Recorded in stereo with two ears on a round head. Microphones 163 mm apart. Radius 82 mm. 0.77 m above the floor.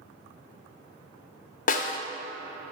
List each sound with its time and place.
1.7 s a snare drum: 45° left (ahead or behind), 0.6 m